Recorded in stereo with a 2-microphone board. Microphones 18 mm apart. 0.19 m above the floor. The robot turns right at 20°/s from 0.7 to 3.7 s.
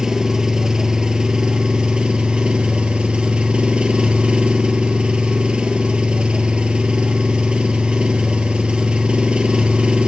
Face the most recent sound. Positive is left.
turn(degrees=-80)